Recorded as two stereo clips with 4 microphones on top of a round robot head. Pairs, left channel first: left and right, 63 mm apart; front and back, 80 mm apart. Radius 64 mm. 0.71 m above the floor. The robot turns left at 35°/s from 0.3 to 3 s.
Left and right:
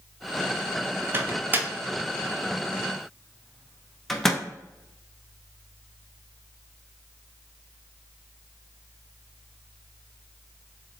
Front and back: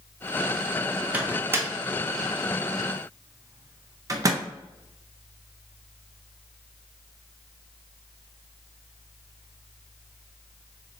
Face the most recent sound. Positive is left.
turn(degrees=175)